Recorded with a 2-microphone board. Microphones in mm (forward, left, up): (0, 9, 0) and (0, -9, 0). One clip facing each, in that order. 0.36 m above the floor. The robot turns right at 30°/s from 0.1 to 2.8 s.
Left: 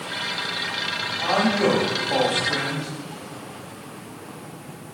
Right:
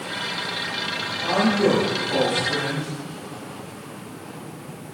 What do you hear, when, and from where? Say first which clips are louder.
1.2 s a man speaking: right 1 dB; 45° left, 1.7 m; by 2.9 s 95° left, 1.7 m